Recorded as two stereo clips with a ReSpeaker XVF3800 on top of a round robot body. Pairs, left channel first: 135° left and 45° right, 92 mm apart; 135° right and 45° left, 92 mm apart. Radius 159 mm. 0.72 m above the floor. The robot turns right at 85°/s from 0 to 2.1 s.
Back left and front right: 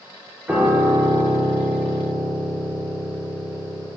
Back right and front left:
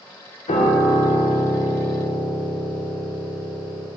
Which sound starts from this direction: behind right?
A piano, at 0.5 s.